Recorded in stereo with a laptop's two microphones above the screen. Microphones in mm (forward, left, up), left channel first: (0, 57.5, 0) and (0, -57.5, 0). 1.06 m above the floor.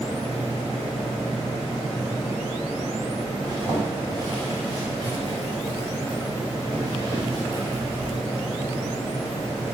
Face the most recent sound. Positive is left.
turn(degrees=-35)  # may be behind; listen again after turning